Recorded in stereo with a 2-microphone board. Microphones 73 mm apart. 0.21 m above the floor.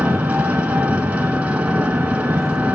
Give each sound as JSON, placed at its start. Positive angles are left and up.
{"t": 0.0, "sound": "an engine running", "side_deg": -20, "distance_m": 0.9}